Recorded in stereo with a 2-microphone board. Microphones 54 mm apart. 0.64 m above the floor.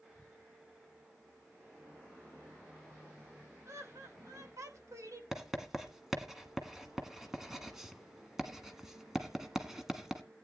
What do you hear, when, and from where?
3.6 s laughter: 60° right (ahead or behind), 3.5 m; by 5.2 s 70° right (ahead or behind), 3 m
5.3 s writing: 5° right (ahead or behind), 1.5 m